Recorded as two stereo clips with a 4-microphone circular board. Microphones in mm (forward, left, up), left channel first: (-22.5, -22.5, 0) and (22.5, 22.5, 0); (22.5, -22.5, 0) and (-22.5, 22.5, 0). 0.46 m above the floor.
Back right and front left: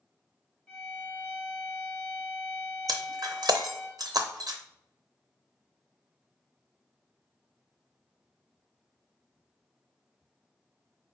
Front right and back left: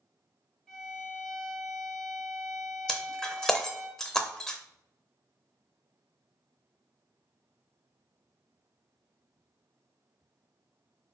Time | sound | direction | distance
0.7 | a violin | 110° right | 1.2 m
2.9 | breaking glass | 35° left | 0.6 m